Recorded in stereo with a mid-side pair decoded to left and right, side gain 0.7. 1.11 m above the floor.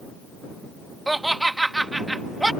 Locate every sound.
1.1 s laughter: 10° right